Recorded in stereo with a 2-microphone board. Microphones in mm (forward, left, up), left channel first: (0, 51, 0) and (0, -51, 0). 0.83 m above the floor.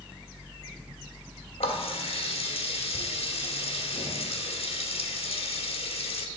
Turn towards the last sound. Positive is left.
turn(degrees=70)  # may be behind; listen again after turning